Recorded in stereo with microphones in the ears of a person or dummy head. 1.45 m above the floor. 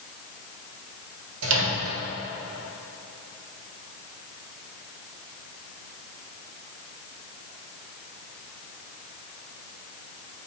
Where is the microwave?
75° right (ahead or behind), 1.2 m.